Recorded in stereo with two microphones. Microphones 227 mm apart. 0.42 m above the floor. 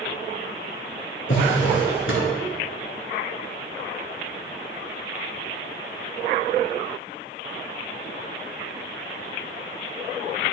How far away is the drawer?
About 2.5 m.